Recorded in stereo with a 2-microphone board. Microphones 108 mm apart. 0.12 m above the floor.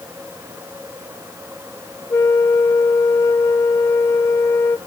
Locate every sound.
2.1 s a flute: 25° left (ahead or behind), 0.7 m